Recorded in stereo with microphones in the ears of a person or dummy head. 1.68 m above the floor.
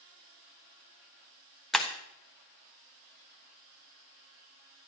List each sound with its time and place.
1.7 s breaking glass: 5° left (ahead or behind), 1.3 m